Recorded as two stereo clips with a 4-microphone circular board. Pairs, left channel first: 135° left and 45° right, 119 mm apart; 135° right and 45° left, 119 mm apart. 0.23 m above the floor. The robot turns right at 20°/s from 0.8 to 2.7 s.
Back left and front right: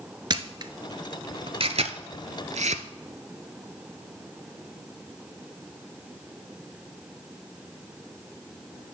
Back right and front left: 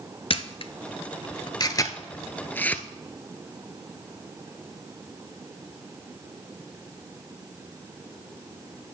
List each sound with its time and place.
0.3 s a camera shutter: 95° right, 0.5 m; by 2.8 s 60° right, 0.5 m